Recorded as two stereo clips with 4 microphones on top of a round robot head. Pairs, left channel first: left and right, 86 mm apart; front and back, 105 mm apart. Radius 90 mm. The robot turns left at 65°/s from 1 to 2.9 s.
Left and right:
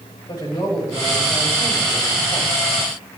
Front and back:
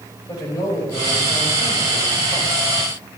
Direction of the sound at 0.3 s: 55° left.